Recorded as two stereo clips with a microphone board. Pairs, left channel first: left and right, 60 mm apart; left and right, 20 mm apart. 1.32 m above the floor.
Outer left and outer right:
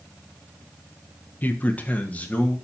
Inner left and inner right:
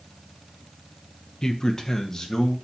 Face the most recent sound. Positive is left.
turn(degrees=25)  # may be behind; listen again after turning